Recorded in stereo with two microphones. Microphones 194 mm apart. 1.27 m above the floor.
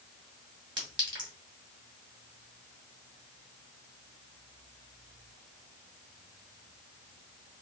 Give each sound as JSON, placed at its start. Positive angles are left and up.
{"t": 0.8, "sound": "a clink", "side_deg": -75, "distance_m": 1.9}